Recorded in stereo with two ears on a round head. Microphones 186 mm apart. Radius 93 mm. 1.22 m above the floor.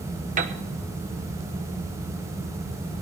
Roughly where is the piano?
Right.